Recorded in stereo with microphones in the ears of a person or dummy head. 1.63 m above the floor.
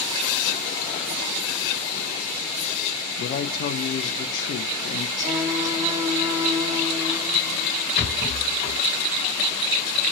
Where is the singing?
20° right (ahead or behind), 0.6 m.